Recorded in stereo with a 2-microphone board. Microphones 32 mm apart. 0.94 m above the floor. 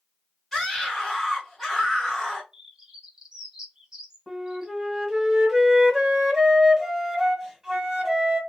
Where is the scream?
10° right (ahead or behind), 2 m.